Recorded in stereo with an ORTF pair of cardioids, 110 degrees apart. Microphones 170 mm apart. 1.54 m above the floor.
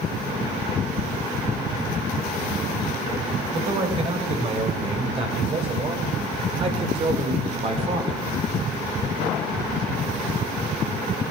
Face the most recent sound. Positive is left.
turn(degrees=-35)